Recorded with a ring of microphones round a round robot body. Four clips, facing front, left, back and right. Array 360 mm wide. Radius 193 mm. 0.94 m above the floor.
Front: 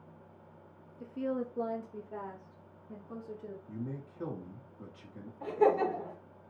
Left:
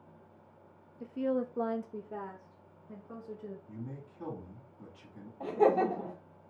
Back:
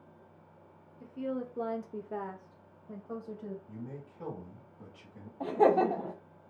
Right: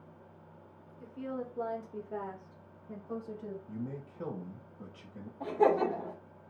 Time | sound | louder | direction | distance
1.0 | a woman speaking | left 7 dB, front 1 dB | 55° left | 0.7 m
3.7 | a man speaking | right 4 dB, front 3 dB | 80° right | 1.5 m
5.4 | laughter | even, back 2 dB | 170° left | 0.8 m